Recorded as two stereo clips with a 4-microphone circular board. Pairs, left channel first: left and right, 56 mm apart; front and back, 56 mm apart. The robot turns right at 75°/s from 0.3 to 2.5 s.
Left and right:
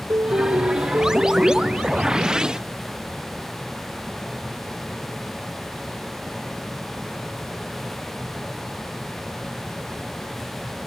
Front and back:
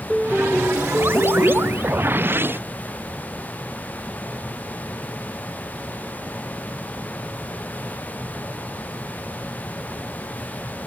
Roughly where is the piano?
Right.